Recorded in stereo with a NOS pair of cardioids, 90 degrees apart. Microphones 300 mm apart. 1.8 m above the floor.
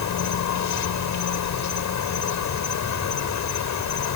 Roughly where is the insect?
Left.